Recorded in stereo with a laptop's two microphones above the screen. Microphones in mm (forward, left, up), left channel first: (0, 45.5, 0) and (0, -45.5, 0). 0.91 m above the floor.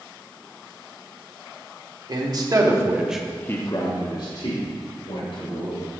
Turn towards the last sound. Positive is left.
turn(degrees=85)